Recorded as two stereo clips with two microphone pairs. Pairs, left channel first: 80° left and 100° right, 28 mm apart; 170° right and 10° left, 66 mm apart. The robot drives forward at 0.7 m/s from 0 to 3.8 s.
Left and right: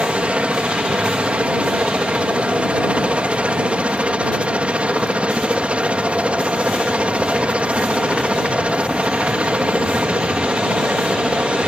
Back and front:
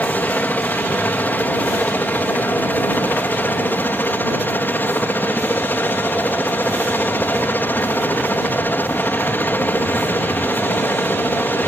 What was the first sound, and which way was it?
A helicopter, 110° right.